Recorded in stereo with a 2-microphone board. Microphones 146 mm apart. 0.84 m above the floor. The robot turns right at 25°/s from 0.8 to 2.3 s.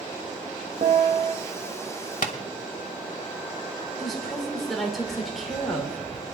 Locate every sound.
0.8 s a piano: 55° right (ahead or behind), 0.8 m; by 1.4 s 60° right (ahead or behind), 0.8 m
2.2 s tapping: 70° left (ahead or behind), 1.2 m
4.0 s a woman speaking: centre (ahead or behind), 3.5 m